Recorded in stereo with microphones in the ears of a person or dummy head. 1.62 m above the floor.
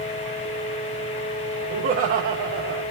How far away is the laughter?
About 1.6 m.